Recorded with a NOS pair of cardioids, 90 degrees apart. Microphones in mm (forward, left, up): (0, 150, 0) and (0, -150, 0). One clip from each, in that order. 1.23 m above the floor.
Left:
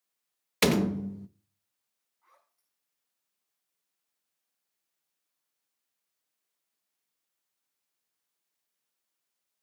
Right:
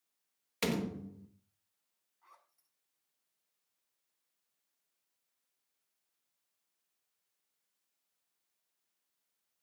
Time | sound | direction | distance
0.6 | a door slam | 55° left | 1.0 m
2.2 | a zipper | 30° right | 7 m